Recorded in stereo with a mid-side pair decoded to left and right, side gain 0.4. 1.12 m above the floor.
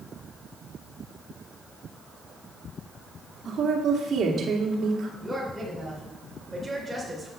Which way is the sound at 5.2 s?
10° right.